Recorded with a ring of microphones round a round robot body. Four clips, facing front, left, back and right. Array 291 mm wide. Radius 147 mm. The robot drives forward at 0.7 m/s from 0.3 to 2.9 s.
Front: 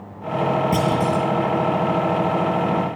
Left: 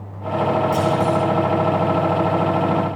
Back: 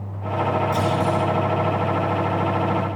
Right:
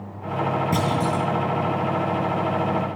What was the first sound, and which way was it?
A clunk, 35° right.